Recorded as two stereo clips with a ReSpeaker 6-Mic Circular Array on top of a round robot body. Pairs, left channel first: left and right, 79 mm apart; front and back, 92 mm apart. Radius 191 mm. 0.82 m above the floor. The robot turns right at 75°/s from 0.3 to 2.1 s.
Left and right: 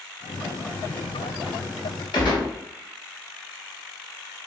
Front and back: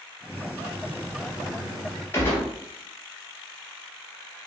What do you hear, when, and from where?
2.1 s a gunshot: 65° left, 0.9 m